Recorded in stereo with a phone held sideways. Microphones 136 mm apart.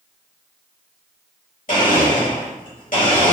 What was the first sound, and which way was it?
A blender, 70° left (ahead or behind).